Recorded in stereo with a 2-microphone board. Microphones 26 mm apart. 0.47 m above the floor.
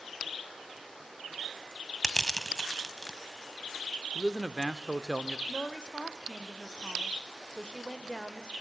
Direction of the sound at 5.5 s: 35° left (ahead or behind).